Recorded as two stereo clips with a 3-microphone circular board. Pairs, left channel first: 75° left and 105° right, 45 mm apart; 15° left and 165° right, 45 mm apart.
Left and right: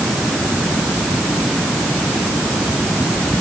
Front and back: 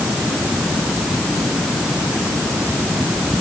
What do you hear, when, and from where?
Only background noise.